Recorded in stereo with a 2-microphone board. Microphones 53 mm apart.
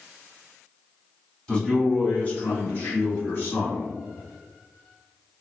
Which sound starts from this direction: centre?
A man speaking, at 1.5 s.